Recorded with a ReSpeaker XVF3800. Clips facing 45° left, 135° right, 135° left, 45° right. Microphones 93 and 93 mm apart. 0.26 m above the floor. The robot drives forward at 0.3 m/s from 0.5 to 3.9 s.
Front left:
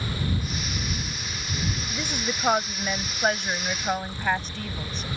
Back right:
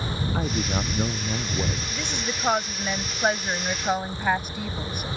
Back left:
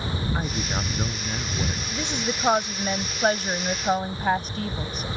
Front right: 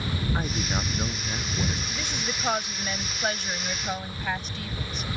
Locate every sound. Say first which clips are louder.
0.3 s a man speaking: back right 6 dB, back left 1 dB; 140° right
1.9 s a woman speaking: even, back left 5 dB; 110° left; by 5.1 s 150° left